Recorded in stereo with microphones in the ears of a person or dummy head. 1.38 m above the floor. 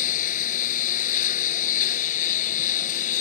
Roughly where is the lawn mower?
Left.